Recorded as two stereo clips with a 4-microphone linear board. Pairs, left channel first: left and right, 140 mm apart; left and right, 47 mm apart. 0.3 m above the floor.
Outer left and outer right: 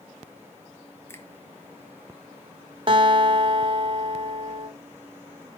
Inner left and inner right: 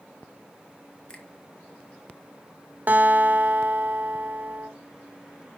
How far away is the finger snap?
About 1.6 m.